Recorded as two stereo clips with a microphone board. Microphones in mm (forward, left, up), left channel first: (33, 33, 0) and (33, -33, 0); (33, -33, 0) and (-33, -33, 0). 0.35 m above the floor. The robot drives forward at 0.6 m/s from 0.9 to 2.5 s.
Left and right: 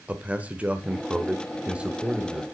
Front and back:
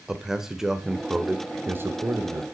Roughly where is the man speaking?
Right.